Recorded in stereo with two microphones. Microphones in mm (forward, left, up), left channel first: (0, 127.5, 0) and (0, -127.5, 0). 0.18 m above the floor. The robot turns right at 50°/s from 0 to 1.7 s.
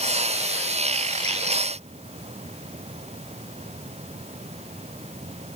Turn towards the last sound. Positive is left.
No sound to turn to.